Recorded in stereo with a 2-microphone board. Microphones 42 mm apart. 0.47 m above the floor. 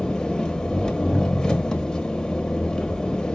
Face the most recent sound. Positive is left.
turn(degrees=20)  # may be behind; listen again after turning